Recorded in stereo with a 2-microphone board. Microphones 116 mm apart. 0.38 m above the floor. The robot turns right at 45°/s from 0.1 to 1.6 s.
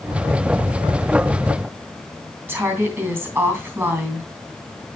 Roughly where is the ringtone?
I don't hear a ringtone.